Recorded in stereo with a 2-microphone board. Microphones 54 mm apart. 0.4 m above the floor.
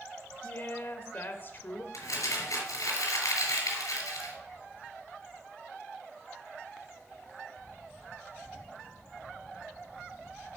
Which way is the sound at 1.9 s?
80° left.